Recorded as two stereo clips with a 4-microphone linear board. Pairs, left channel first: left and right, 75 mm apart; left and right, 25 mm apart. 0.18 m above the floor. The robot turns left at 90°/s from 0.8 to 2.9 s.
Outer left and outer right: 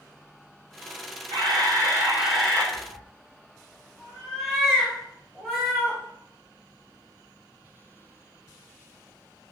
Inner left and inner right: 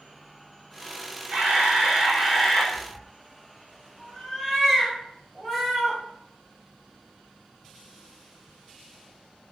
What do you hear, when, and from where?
1.3 s a camera shutter: 85° right, 1.5 m; by 2.6 s 155° left, 1.5 m
2.7 s a cat meowing: 15° left (ahead or behind), 1.6 m; by 6.0 s 5° left (ahead or behind), 1.6 m